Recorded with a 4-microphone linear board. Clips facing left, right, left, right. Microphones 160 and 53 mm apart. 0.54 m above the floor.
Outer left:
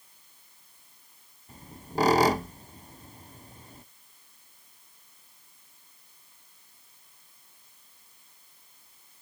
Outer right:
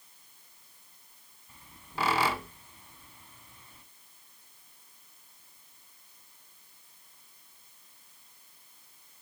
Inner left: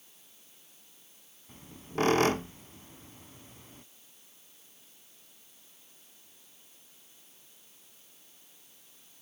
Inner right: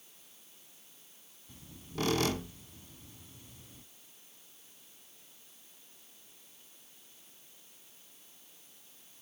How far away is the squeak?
About 0.5 m.